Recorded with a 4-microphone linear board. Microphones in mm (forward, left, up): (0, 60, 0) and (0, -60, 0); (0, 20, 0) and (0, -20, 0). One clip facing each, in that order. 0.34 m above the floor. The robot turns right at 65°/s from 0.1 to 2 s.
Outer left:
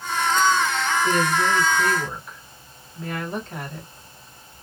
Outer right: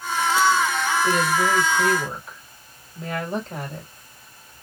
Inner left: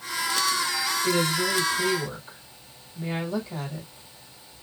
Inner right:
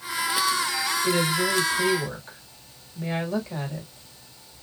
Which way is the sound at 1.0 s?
140° right.